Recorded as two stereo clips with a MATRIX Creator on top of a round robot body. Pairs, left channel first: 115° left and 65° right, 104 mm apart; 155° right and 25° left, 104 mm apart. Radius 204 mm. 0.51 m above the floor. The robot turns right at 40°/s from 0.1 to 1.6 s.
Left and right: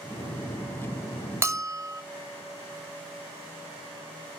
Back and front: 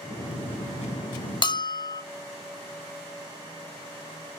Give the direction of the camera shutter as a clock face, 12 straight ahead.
I don't hear a camera shutter.